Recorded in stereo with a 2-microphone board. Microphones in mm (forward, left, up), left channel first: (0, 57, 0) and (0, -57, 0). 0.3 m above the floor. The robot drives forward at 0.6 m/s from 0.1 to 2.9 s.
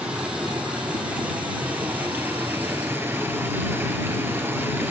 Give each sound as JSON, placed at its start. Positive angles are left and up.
{"t": 0.0, "sound": "running water", "side_deg": -10, "distance_m": 3.5}